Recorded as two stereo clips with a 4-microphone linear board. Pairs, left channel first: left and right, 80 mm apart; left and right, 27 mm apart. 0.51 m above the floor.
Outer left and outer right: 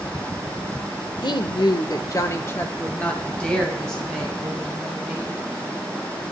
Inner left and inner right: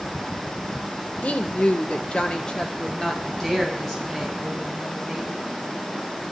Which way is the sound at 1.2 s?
65° left (ahead or behind).